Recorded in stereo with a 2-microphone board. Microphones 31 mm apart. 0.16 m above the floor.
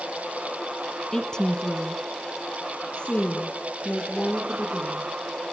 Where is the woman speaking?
15° left (ahead or behind), 1.5 m; by 5.1 s 35° left (ahead or behind), 5.5 m.